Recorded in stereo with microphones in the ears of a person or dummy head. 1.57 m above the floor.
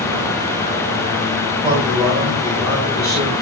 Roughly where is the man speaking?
Right.